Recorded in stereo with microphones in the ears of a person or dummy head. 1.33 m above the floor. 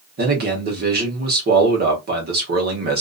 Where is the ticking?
I don't hear ticking.